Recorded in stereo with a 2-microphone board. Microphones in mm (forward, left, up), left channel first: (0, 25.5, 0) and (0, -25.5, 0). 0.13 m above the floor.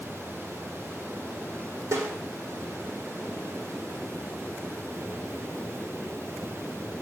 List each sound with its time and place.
1.9 s a snare drum: 65° right (ahead or behind), 8.5 m